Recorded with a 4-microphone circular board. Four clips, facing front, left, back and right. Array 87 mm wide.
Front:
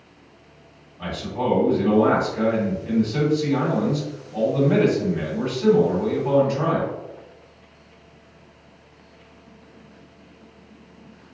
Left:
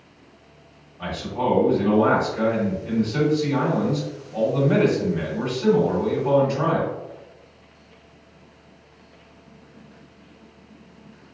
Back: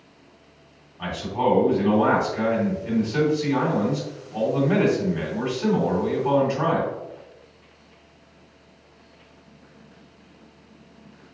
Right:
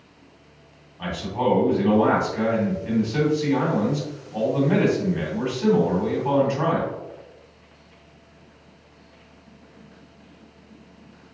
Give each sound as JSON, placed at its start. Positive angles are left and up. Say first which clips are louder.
{"t": 1.0, "sound": "a man speaking", "louder": "right 1 dB, back 2 dB", "azimuth_deg": -130, "distance_m": 1.7}